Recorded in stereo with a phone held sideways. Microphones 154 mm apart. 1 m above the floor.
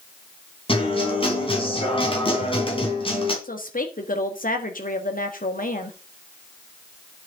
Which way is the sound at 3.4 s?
65° left (ahead or behind).